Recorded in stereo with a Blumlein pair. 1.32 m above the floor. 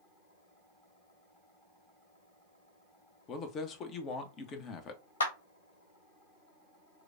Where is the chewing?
I don't hear chewing.